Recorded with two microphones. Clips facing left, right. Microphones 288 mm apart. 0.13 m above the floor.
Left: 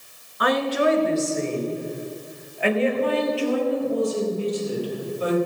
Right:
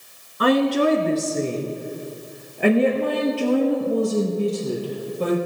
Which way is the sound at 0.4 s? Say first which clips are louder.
Right 4 dB; 35° right (ahead or behind).